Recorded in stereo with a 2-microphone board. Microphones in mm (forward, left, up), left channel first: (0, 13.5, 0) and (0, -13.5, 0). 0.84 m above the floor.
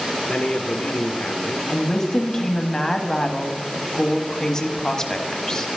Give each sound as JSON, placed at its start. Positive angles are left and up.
{"t": 0.3, "sound": "a man speaking", "side_deg": 40, "distance_m": 0.7}
{"t": 1.7, "sound": "a woman speaking", "side_deg": 15, "distance_m": 1.1}